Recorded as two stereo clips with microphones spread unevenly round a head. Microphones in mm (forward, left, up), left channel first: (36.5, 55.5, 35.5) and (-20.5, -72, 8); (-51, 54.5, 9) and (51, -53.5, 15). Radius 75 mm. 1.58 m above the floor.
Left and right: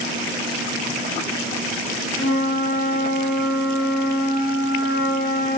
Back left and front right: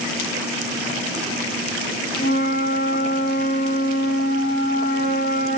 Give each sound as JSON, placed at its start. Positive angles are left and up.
{"t": 2.2, "sound": "a flute", "azimuth_deg": 90, "distance_m": 1.1}